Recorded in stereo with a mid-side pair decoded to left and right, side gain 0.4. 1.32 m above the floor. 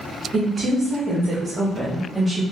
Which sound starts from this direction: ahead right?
A woman speaking, at 0.3 s.